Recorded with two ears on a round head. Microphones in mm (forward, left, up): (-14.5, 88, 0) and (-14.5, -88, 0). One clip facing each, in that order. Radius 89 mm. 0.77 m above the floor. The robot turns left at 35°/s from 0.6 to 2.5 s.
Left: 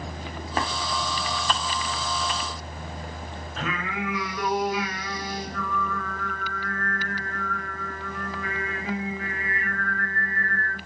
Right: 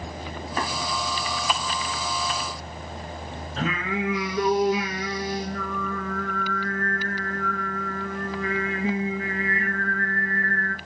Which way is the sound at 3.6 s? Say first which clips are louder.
Right 4 dB; 25° right (ahead or behind).